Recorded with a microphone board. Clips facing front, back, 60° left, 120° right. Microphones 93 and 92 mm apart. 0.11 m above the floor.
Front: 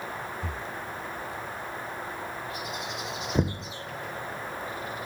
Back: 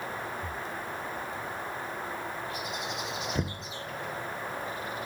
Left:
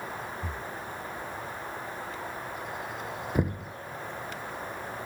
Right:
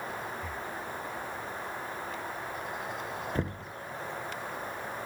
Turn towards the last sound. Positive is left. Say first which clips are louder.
# front 6 dB, left 8 dB
turn(degrees=0)